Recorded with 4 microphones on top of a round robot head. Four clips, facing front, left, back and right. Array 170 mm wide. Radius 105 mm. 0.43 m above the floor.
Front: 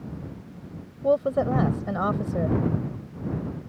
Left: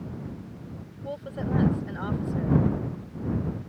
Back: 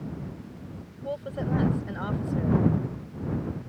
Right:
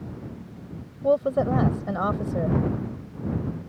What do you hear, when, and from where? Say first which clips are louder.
1.0 s a woman speaking: right 12 dB, front 10 dB; 50° right